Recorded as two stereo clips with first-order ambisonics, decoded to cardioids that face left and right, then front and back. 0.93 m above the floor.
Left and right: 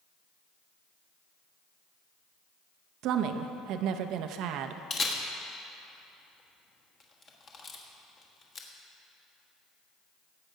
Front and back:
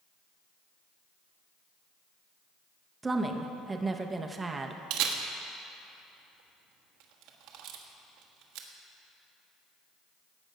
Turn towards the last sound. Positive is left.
turn(degrees=155)